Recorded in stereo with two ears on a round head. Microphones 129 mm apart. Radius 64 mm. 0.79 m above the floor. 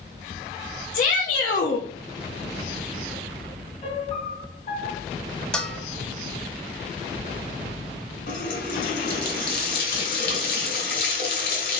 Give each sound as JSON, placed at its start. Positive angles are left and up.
{"t": 0.9, "sound": "a shout", "side_deg": 60, "distance_m": 0.8}
{"t": 3.8, "sound": "a piano", "side_deg": 45, "distance_m": 2.0}
{"t": 5.5, "sound": "a bell", "side_deg": 5, "distance_m": 0.7}
{"t": 8.3, "sound": "a running tap", "side_deg": 70, "distance_m": 2.5}